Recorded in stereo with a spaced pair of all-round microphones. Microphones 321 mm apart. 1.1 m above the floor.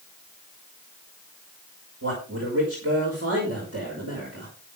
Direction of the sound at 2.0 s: 45° right (ahead or behind).